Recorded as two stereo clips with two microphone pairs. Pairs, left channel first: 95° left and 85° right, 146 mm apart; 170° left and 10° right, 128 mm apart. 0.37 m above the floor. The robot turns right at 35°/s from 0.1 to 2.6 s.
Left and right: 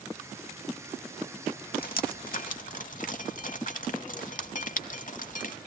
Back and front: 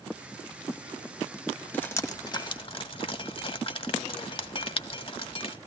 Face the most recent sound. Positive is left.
turn(degrees=120)